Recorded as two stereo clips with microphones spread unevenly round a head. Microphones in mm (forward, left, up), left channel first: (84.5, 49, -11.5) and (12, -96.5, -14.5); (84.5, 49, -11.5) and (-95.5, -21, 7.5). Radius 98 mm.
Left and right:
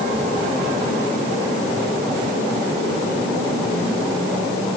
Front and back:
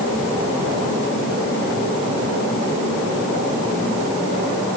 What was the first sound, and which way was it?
Only background noise.